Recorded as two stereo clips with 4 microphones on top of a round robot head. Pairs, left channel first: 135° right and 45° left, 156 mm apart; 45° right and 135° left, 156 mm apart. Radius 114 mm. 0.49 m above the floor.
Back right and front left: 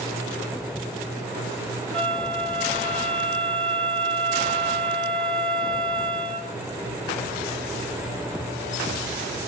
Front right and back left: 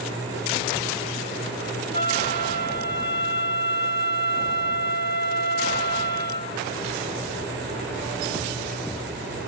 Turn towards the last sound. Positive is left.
turn(degrees=-45)